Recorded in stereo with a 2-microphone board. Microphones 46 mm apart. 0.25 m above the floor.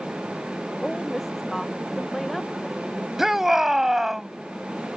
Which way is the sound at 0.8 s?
Centre (ahead or behind).